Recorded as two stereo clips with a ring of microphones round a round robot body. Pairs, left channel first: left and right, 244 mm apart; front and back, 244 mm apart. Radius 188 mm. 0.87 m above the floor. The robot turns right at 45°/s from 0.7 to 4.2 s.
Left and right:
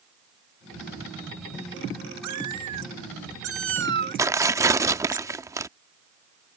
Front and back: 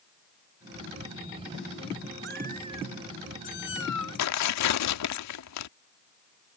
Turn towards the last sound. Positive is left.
turn(degrees=-10)